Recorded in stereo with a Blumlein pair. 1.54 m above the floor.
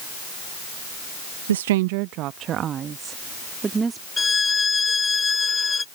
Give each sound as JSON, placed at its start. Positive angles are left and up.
{"t": 1.5, "sound": "a woman speaking", "azimuth_deg": -65}
{"t": 4.2, "sound": "a violin", "azimuth_deg": 15}